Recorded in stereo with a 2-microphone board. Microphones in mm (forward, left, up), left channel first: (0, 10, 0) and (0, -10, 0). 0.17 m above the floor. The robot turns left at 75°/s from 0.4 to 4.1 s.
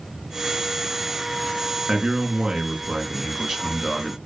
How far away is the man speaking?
About 2.5 m.